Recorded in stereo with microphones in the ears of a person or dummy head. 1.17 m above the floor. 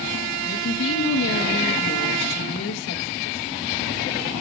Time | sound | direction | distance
0.5 | a woman speaking | 75° left (ahead or behind) | 1.6 m